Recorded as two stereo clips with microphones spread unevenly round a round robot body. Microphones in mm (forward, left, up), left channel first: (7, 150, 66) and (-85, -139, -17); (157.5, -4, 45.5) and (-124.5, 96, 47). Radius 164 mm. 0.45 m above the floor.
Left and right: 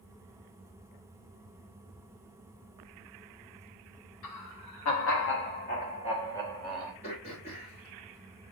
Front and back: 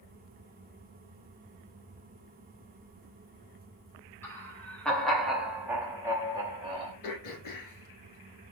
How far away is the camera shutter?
No camera shutter in this recording.